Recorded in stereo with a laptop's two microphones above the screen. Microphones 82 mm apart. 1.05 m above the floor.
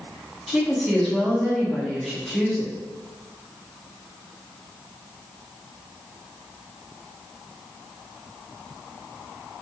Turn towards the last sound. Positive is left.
turn(degrees=0)  # may be behind; listen again after turning